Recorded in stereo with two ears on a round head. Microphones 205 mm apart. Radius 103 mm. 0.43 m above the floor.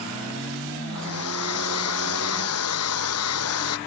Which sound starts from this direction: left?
A hair dryer, at 0.9 s.